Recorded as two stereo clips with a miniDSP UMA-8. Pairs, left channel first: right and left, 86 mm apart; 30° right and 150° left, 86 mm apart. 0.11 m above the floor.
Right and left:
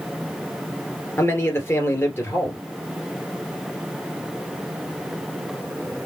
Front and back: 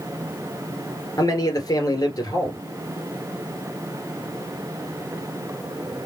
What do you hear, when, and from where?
1.2 s a man speaking: 35° right, 2 m